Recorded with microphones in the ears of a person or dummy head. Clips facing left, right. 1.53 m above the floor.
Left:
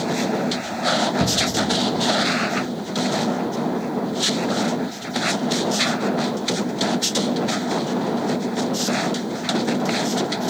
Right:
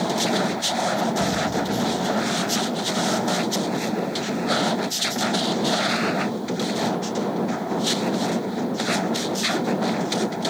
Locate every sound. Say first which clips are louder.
1.2 s a shout: left 1 dB; 30° left (ahead or behind), 1.1 m